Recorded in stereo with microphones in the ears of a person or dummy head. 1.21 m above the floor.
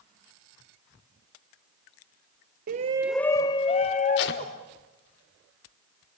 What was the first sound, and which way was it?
A shout, 45° right (ahead or behind).